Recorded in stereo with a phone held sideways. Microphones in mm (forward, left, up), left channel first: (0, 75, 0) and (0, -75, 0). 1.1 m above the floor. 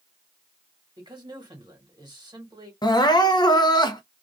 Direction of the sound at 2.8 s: 25° left (ahead or behind).